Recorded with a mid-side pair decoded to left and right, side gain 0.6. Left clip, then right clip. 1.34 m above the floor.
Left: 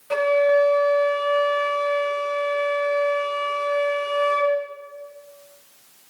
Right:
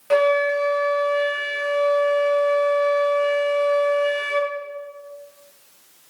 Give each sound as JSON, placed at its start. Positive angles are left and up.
{"t": 0.1, "sound": "a flute", "azimuth_deg": -35, "distance_m": 1.3}